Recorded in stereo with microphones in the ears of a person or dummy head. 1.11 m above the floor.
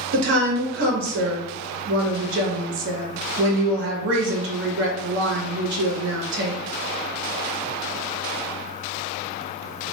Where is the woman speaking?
60° right (ahead or behind), 1.3 m.